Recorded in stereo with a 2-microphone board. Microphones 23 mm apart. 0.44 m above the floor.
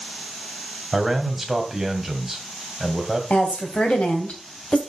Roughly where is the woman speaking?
Left.